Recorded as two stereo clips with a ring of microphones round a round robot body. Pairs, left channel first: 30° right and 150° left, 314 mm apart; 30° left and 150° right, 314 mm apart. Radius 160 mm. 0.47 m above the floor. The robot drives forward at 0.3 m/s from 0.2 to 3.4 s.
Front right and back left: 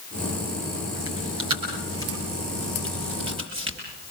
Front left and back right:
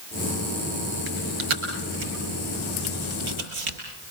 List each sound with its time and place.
1.1 s chewing: 135° right, 6 m; by 3.8 s 140° right, 6.5 m